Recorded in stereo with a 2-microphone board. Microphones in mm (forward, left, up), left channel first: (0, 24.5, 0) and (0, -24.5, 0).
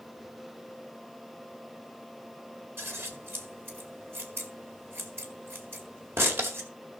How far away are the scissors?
About 1.9 m.